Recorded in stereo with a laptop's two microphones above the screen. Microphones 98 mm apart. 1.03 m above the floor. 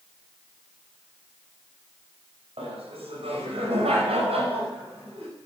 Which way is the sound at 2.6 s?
75° right (ahead or behind).